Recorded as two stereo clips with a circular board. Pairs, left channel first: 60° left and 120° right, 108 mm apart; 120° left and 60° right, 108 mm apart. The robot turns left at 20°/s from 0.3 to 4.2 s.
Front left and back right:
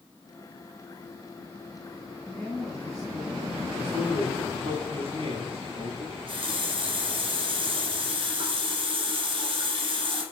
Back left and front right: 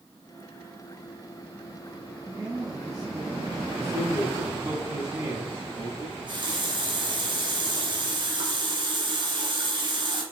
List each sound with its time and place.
2.2 s a woman speaking: 15° right, 2 m; by 3.7 s 40° right, 2 m
3.8 s a man speaking: 90° right, 3.5 m; by 5.9 s 100° right, 3.5 m
6.0 s a running tap: 95° right, 1.9 m